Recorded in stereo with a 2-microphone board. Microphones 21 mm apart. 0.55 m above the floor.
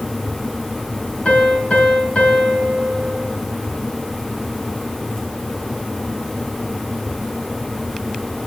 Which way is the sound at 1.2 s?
70° left (ahead or behind).